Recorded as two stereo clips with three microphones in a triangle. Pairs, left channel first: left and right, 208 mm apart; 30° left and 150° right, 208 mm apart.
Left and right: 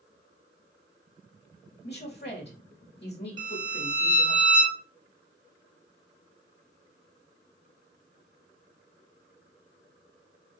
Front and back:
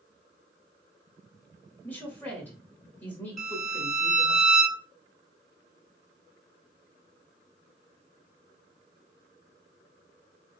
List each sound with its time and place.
1.8 s a woman speaking: 110° left, 1.4 m
3.4 s a violin: 120° left, 1.5 m